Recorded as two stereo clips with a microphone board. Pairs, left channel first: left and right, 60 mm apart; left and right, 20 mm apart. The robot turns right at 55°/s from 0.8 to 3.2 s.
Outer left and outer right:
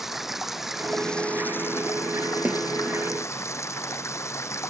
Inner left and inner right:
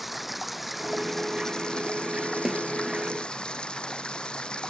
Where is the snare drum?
25° right (ahead or behind); by 2.6 s 20° right (ahead or behind).